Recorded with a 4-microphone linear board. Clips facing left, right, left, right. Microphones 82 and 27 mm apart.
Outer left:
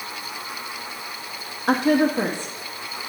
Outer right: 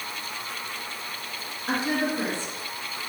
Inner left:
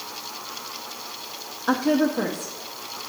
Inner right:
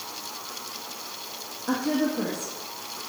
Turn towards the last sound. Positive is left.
turn(degrees=50)  # may be behind; listen again after turning